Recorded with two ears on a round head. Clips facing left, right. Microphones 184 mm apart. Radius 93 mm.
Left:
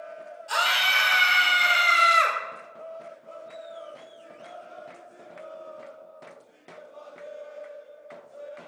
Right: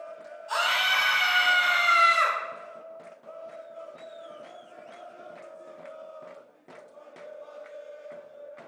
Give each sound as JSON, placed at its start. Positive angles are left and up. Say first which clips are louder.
{"t": 0.5, "sound": "a scream", "louder": "even", "side_deg": 30, "distance_m": 4.0}